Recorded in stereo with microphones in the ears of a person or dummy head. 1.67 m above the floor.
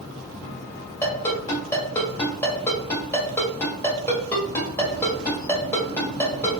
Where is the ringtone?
15° left (ahead or behind), 1.4 m.